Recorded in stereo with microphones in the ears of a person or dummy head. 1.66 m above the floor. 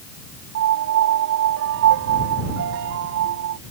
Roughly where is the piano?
Right.